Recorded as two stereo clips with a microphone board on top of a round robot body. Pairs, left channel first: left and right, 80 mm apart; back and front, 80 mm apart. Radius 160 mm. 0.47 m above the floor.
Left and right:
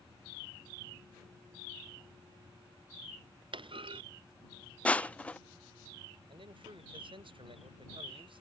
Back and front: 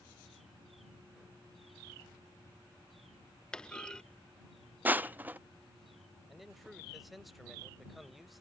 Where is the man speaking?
90° right.